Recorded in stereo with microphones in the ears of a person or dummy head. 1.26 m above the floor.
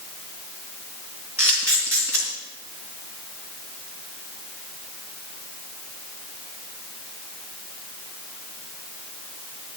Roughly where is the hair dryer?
No hair dryer in this recording.